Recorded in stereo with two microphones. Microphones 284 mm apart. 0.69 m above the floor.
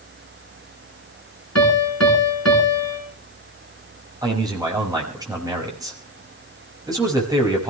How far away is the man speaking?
About 5 m.